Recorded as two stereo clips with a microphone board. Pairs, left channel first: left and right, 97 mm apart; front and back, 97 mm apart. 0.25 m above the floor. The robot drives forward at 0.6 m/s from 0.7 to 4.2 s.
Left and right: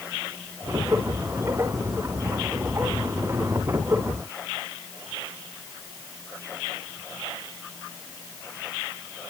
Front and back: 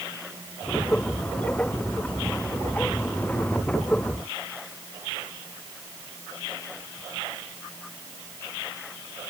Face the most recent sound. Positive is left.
No sound to turn to.